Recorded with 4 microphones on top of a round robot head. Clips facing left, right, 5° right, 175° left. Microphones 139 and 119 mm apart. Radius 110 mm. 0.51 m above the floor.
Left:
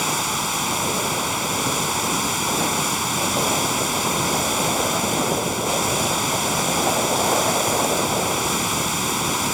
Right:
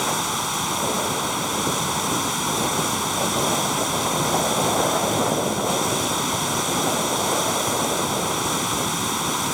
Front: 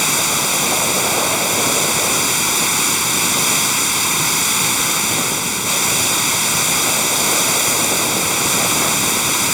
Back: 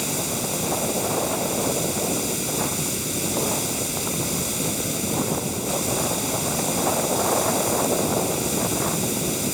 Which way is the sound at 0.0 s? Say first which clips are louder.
Even, front 5 dB; 5° left.